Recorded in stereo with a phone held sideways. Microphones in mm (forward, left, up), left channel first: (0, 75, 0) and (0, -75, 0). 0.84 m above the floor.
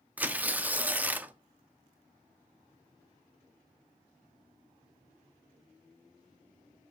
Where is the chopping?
No chopping in this recording.